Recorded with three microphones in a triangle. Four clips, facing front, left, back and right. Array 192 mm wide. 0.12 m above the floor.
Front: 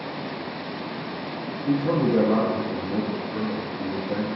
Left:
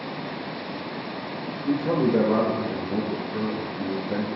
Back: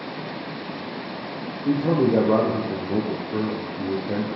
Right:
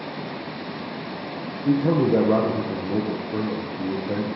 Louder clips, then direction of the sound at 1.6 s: Right 3 dB, back 2 dB; 130° right.